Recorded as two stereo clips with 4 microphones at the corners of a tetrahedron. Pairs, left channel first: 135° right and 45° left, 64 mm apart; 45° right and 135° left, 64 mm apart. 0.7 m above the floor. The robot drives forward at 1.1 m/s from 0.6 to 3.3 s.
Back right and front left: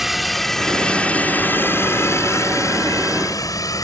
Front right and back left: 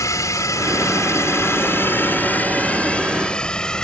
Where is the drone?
40° right; by 3.8 s 125° right.